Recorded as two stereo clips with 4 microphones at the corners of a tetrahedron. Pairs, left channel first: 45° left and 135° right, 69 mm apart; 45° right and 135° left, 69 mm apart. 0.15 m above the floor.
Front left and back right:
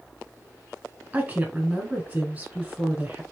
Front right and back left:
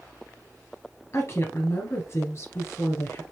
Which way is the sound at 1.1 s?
70° right.